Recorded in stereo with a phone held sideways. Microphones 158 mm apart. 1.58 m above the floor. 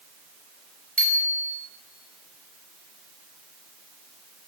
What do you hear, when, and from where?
1.0 s a bicycle bell: 10° left (ahead or behind), 5.5 m